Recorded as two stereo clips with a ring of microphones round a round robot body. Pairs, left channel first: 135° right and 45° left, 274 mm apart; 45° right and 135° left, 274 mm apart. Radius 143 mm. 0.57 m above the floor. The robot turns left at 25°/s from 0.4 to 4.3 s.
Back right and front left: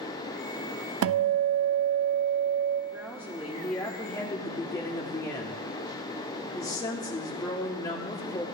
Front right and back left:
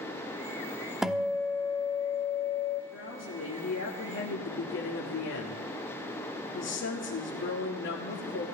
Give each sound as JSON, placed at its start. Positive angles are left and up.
{"t": 1.0, "sound": "a guitar", "azimuth_deg": 50, "distance_m": 0.9}
{"t": 2.9, "sound": "a woman speaking", "azimuth_deg": -30, "distance_m": 1.6}